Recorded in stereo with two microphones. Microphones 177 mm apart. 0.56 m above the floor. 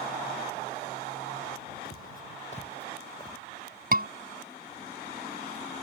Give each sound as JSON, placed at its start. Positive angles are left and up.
{"t": 1.9, "sound": "footsteps", "side_deg": 60}
{"t": 3.9, "sound": "a scream", "side_deg": -55}